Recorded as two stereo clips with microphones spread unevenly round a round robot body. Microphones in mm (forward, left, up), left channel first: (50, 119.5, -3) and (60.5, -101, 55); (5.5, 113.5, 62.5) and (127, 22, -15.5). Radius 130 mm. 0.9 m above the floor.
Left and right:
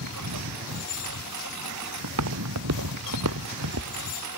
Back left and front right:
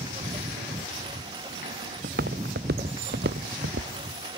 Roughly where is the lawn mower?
Right.